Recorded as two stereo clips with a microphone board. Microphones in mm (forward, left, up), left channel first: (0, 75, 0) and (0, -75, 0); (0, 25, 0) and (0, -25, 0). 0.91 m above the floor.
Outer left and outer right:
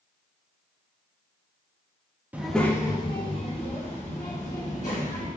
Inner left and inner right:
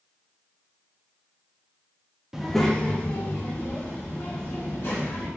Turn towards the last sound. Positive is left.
turn(degrees=55)  # may be behind; listen again after turning